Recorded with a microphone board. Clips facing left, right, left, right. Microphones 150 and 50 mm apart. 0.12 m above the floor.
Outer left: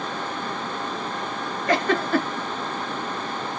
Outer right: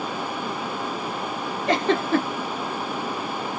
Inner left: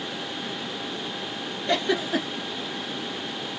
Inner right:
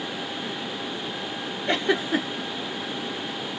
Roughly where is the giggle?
Right.